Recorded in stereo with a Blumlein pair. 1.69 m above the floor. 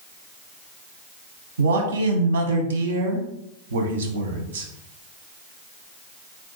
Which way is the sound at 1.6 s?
65° right.